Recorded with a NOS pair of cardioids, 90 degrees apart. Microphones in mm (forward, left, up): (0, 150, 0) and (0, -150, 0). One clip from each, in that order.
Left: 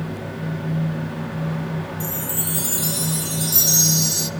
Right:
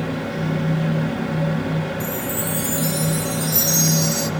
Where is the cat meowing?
No cat meowing in this recording.